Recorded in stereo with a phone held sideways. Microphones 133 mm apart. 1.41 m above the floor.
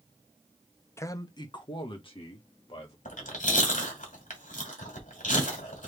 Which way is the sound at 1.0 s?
20° left (ahead or behind).